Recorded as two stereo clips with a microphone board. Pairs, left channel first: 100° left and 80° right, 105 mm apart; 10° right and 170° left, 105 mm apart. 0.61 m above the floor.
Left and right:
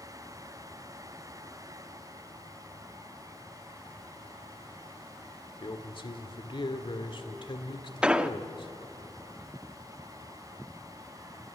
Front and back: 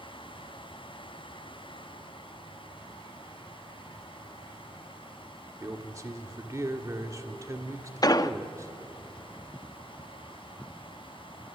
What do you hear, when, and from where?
5.6 s a man speaking: 115° left, 1.9 m
8.0 s an explosion: 5° right, 0.6 m